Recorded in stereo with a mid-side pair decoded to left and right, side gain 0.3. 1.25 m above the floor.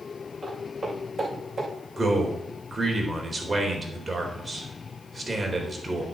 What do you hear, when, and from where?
0.4 s footsteps: 40° right, 6.5 m
2.0 s a man speaking: 30° right, 3.5 m